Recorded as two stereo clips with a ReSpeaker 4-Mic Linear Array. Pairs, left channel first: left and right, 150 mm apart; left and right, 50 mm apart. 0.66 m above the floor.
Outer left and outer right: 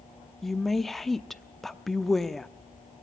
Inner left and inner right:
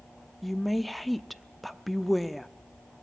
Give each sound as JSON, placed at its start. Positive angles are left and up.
{"t": 0.4, "sound": "a woman speaking", "side_deg": 0, "distance_m": 0.8}